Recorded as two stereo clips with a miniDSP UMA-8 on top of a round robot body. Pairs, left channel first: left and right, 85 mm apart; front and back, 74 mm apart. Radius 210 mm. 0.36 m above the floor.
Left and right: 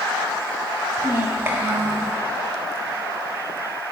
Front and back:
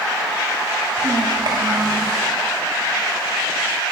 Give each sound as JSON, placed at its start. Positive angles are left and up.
{"t": 1.0, "sound": "a child speaking", "azimuth_deg": -155, "distance_m": 1.0}